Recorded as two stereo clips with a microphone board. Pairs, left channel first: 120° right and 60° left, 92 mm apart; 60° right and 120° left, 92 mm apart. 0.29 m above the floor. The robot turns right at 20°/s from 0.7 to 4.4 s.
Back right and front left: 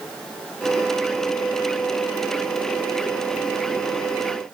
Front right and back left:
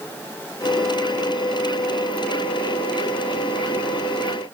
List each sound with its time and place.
Only background noise.